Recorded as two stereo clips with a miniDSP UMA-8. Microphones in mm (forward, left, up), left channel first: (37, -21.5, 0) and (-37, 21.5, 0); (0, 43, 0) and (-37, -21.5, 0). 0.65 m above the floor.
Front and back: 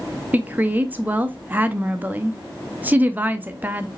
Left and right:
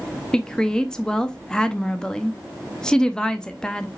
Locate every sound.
0.3 s a woman speaking: 125° left, 0.6 m